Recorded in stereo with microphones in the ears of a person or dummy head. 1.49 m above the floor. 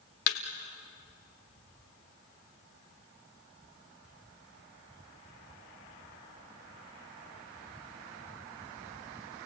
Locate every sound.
0.3 s a thud: 35° left (ahead or behind), 1.3 m